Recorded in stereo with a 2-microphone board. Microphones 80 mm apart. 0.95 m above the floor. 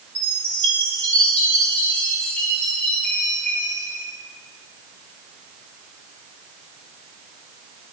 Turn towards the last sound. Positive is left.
turn(degrees=15)  # may be behind; listen again after turning